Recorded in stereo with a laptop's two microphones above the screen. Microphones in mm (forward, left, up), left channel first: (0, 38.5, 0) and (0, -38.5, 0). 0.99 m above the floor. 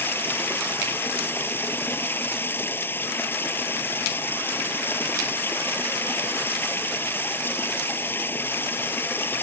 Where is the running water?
25° left (ahead or behind).